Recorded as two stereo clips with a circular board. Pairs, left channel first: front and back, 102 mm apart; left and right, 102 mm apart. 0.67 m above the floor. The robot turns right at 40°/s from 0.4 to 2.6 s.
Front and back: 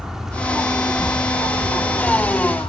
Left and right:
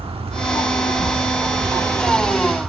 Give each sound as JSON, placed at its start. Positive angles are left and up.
{"t": 0.0, "sound": "an insect", "azimuth_deg": -95, "distance_m": 1.0}